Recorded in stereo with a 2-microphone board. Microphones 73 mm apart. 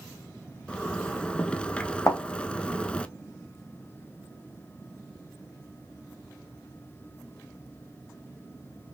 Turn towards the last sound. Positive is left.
turn(degrees=40)  # may be behind; listen again after turning